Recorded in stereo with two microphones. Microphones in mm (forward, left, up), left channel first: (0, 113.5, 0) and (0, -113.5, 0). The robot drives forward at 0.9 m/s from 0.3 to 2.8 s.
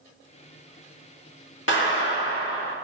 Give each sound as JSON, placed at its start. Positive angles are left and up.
{"t": 1.7, "sound": "a clap", "side_deg": 60, "distance_m": 1.8}